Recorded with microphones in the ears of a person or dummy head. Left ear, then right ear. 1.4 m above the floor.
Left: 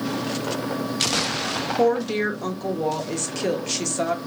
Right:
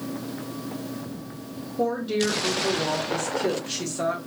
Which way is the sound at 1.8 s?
30° left (ahead or behind).